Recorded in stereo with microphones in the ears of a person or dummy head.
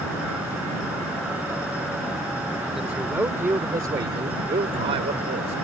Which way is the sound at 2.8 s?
5° right (ahead or behind).